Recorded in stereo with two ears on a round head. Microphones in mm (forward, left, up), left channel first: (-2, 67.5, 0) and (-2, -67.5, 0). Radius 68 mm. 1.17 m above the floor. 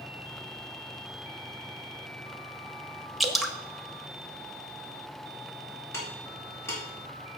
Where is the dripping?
Centre (ahead or behind), 1.1 m.